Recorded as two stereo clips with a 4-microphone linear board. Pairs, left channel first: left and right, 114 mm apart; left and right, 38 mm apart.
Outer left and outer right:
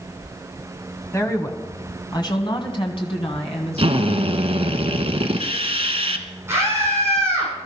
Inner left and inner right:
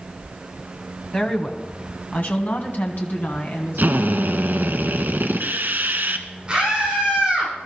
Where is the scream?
25° right (ahead or behind), 9 m.